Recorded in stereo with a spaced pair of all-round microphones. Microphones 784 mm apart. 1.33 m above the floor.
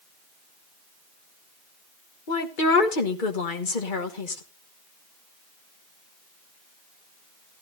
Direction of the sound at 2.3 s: 85° left.